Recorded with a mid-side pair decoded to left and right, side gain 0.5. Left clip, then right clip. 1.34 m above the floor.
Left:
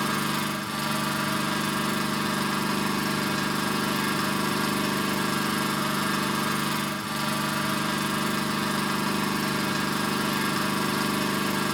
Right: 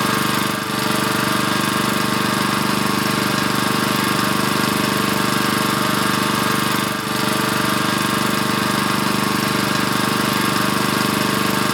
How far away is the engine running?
About 0.9 m.